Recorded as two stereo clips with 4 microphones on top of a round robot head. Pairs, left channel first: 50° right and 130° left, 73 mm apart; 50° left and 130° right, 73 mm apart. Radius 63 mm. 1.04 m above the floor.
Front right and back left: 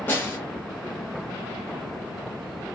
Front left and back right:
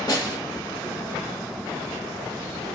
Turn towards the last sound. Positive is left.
turn(degrees=15)